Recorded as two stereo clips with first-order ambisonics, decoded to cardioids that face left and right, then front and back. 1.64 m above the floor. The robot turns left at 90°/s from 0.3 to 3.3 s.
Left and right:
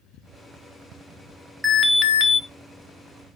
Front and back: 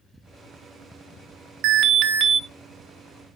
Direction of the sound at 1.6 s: Straight behind.